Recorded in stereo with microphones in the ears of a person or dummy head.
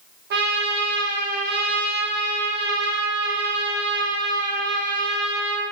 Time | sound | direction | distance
0.3 | a trumpet | 65° right (ahead or behind) | 0.6 m